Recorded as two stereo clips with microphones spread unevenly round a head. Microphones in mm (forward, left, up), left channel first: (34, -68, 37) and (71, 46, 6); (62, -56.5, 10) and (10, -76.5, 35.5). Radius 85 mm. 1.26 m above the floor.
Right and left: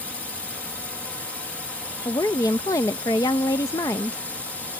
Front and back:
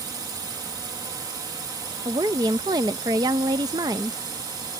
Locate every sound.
0.0 s a drone: 165° left
2.0 s a woman speaking: straight behind